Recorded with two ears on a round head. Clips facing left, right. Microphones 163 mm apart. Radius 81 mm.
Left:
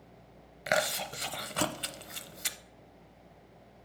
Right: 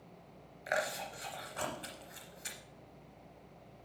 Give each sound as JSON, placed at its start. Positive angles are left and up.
{"t": 0.7, "sound": "chewing", "side_deg": 75, "distance_m": 0.6}